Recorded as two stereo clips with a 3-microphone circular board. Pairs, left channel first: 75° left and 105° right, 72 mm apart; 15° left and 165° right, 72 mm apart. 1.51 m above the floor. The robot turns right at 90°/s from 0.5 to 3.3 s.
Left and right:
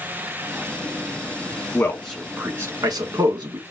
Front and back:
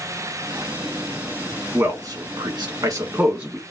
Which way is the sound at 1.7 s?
125° left.